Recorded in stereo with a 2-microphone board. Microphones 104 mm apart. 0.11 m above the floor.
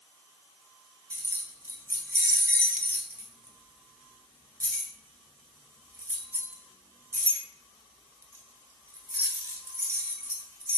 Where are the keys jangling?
25° right (ahead or behind), 1.0 m.